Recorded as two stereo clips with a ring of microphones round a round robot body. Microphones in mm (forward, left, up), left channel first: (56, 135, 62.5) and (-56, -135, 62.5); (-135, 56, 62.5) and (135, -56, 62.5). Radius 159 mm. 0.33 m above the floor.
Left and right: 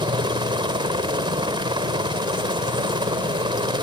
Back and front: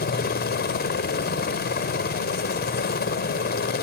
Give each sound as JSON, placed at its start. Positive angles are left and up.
{"t": 0.0, "sound": "a helicopter", "azimuth_deg": -175}